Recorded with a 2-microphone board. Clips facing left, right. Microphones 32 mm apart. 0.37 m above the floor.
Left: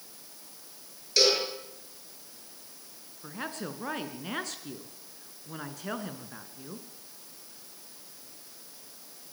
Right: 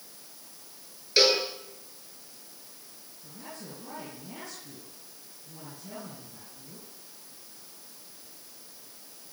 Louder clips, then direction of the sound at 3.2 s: Left 7 dB; 65° left (ahead or behind).